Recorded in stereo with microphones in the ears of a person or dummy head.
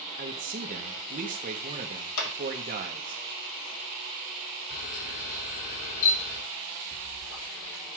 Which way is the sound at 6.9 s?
75° left (ahead or behind).